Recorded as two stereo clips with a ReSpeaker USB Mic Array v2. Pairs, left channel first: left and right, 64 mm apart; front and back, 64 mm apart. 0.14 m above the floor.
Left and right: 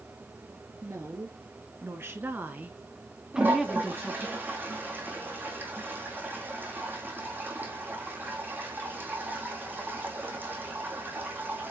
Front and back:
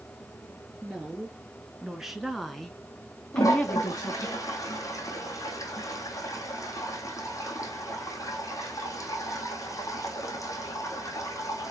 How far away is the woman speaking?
About 2.5 m.